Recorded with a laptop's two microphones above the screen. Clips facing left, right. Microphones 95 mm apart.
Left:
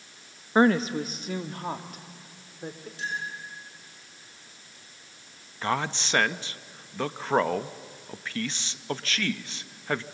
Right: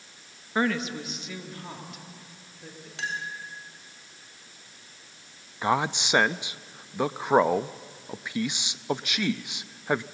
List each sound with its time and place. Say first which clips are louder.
0.6 s a woman speaking: left 6 dB; 30° left (ahead or behind), 0.7 m; by 2.9 s 50° left (ahead or behind), 2.5 m
3.0 s a clink: even; 85° right, 3 m
5.6 s a man speaking: right 3 dB; 15° right (ahead or behind), 0.6 m